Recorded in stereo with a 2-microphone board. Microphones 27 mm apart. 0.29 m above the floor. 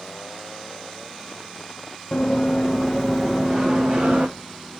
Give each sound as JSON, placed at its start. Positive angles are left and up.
{"t": 2.1, "sound": "running footsteps", "side_deg": 30, "distance_m": 1.2}